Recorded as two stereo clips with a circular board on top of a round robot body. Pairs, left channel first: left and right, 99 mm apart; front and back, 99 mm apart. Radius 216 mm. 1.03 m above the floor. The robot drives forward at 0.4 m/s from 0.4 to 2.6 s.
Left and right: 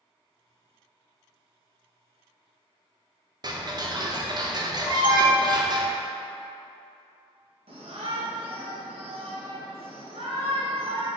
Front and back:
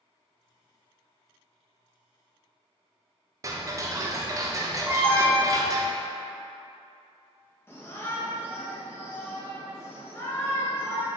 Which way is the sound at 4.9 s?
115° left.